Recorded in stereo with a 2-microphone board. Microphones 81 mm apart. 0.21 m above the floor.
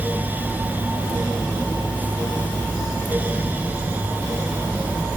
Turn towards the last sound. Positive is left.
No sound to turn to.